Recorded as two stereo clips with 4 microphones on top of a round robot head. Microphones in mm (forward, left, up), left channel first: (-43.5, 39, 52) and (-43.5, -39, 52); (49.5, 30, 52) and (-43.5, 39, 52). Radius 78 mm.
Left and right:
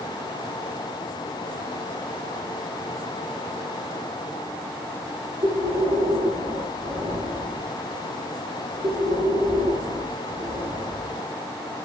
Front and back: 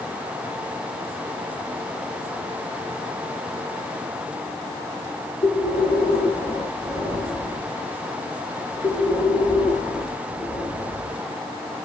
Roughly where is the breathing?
Ahead right.